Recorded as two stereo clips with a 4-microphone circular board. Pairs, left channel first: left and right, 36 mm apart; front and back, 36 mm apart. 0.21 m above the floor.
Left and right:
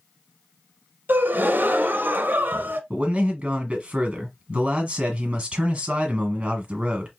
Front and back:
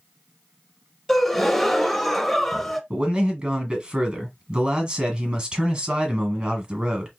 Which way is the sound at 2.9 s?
140° right.